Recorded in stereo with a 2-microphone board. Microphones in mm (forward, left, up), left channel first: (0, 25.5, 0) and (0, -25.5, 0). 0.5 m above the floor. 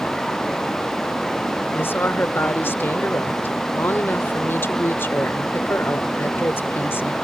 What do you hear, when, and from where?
1.8 s a woman speaking: 50° left (ahead or behind)